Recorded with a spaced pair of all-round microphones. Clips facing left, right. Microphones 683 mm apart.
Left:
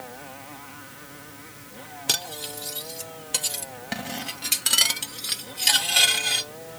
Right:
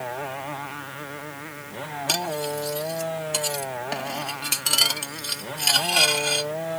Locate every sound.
0.0 s a motorcycle: 85° right
2.1 s cutlery clinking: 50° left (ahead or behind)